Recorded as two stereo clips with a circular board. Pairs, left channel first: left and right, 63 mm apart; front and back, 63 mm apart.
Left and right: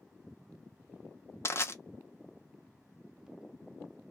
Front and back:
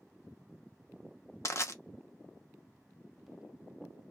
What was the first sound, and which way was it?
Crushing, 45° left.